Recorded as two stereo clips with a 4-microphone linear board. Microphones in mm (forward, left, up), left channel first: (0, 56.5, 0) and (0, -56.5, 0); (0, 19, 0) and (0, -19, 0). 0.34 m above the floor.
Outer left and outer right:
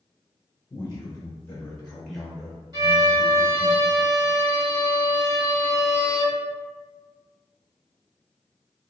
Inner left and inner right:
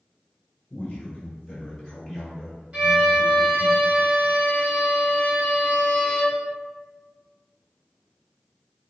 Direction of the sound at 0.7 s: 25° left (ahead or behind).